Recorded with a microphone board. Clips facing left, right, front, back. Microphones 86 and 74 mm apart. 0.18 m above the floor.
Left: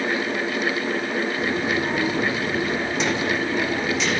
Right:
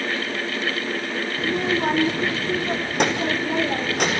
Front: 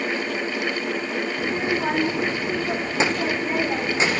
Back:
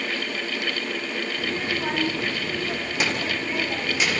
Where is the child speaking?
70° right, 5.5 m; by 4.2 s 60° right, 6.5 m.